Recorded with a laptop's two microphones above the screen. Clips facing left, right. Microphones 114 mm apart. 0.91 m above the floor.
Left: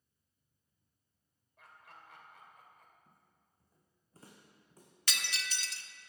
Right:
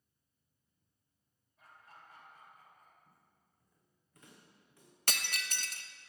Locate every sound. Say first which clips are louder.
1.6 s laughter: left 1 dB; 85° left, 3 m
3.1 s footsteps: left 1 dB; 25° left (ahead or behind), 2.5 m; by 4.9 s 45° left (ahead or behind), 3 m
5.1 s breaking glass: right 1 dB; 50° right (ahead or behind), 0.8 m